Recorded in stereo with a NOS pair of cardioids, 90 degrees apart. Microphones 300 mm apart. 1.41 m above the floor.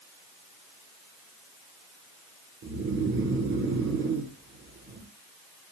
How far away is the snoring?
About 1.0 m.